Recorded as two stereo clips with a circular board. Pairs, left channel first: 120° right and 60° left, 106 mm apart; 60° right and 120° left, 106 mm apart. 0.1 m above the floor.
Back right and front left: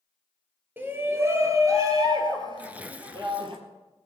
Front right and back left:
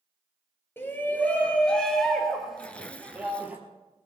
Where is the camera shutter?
I don't hear a camera shutter.